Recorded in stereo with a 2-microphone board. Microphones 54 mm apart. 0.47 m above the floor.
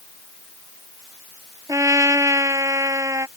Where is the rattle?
No rattle in this recording.